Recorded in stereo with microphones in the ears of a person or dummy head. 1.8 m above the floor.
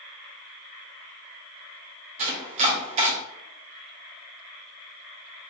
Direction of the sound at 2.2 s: 35° right (ahead or behind).